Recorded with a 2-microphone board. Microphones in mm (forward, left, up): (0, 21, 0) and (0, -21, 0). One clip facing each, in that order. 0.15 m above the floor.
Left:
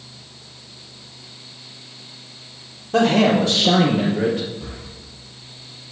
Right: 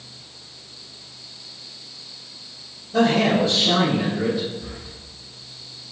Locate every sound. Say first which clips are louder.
2.9 s a man speaking: left 2 dB; 70° left (ahead or behind), 4.5 m; by 4.5 s 55° left (ahead or behind), 4 m
4.6 s breathing: left 1 dB; 70° left (ahead or behind), 3 m